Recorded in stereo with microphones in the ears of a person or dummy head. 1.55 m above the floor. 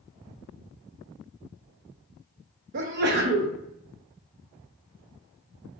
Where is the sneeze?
50° right (ahead or behind), 0.6 m.